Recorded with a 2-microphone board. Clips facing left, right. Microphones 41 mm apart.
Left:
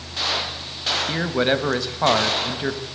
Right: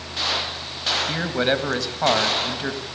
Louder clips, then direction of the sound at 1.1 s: Left 2 dB; 10° left (ahead or behind).